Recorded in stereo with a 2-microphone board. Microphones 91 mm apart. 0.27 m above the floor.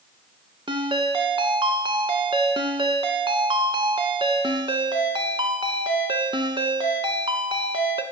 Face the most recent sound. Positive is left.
turn(degrees=-70)  # may be behind; listen again after turning